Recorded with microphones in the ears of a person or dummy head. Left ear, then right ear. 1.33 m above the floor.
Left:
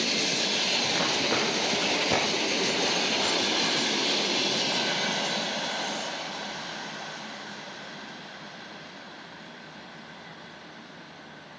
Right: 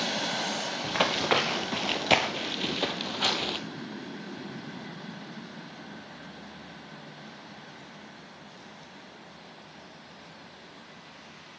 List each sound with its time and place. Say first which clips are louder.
0.8 s running footsteps: even; 15° right (ahead or behind), 1.6 m; by 3.6 s 25° right (ahead or behind), 1.7 m